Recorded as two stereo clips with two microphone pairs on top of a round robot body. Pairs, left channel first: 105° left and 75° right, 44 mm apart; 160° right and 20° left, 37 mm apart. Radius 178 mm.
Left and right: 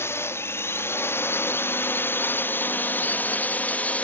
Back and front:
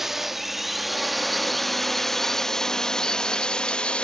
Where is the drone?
95° left; by 4.0 s 155° left.